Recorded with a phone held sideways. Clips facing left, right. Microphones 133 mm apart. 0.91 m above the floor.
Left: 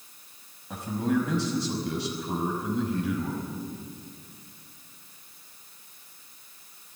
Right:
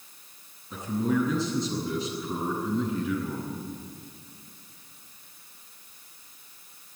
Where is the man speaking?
85° left, 5 m.